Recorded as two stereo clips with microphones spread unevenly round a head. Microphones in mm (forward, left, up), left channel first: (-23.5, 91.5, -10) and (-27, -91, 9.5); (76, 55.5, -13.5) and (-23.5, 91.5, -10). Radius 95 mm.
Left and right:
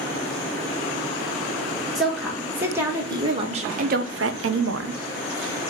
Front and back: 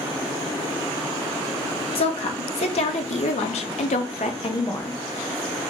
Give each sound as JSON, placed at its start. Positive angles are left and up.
{"t": 1.9, "sound": "a woman speaking", "azimuth_deg": 0, "distance_m": 1.4}